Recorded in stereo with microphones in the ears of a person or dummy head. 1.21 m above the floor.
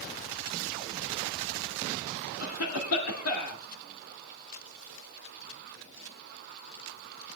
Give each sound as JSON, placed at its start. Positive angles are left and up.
{"t": 2.4, "sound": "a cough", "side_deg": 85, "distance_m": 2.0}